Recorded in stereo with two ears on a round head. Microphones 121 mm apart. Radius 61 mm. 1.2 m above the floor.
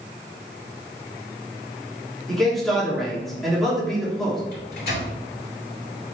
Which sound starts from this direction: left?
A microwave, at 4.5 s.